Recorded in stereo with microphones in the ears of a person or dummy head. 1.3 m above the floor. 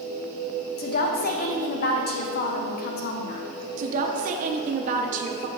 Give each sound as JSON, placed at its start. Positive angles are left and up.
{"t": 0.8, "sound": "a woman speaking", "side_deg": 50, "distance_m": 0.8}
{"t": 3.8, "sound": "a woman speaking", "side_deg": -45, "distance_m": 0.7}